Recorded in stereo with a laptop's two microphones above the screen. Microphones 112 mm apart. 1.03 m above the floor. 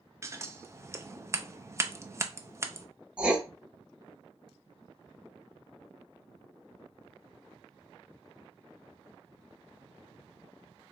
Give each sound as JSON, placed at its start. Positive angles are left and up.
{"t": 0.2, "sound": "scissors", "side_deg": -25, "distance_m": 0.6}
{"t": 3.2, "sound": "writing", "side_deg": -10, "distance_m": 0.8}